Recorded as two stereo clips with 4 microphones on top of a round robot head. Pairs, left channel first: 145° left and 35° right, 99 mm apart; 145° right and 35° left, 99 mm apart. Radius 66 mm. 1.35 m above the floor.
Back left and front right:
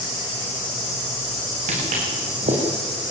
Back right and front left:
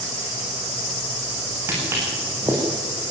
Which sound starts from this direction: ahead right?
Footsteps, at 1.7 s.